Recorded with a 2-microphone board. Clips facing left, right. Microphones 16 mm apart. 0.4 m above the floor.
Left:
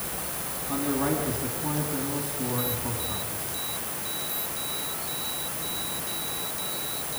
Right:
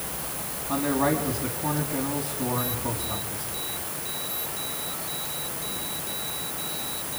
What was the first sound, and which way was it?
A man speaking, 35° right (ahead or behind).